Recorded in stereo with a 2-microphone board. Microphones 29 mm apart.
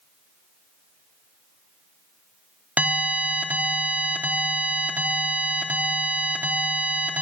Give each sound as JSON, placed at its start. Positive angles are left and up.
{"t": 2.8, "sound": "an alarm", "side_deg": -70, "distance_m": 4.0}